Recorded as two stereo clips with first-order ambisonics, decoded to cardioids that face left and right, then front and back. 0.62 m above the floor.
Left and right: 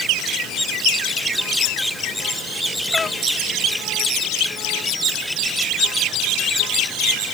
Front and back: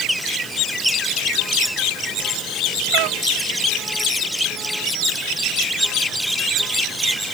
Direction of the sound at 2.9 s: 165° left.